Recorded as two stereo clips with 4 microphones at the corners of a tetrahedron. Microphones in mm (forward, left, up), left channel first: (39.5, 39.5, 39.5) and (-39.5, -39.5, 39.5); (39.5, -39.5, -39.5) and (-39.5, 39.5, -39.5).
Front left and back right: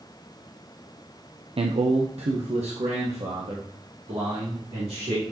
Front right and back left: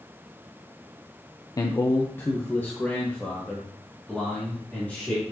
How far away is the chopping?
I don't hear chopping.